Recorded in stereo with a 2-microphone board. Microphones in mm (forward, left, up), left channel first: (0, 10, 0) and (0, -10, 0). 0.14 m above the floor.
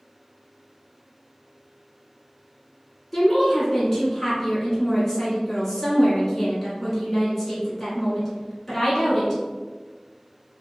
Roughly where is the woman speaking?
Centre.